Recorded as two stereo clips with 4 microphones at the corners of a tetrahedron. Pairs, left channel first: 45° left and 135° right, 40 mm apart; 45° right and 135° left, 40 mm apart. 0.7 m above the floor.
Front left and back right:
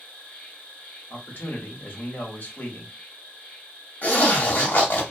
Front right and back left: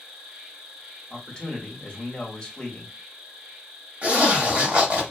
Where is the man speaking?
20° left, 1.2 m.